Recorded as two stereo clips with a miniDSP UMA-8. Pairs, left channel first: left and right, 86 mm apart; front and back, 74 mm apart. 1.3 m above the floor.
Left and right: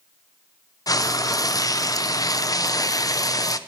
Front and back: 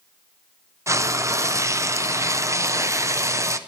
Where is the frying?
135° left, 0.6 m.